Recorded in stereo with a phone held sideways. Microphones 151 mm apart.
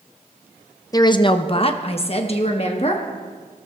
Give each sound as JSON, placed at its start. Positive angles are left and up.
{"t": 0.9, "sound": "a woman speaking", "side_deg": 25, "distance_m": 0.5}